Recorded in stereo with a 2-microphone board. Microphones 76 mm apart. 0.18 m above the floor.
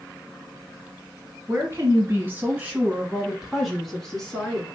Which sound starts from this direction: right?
A woman speaking, at 1.5 s.